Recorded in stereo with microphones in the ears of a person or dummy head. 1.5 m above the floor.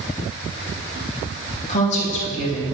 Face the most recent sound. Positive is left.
turn(degrees=40)  # may be behind; listen again after turning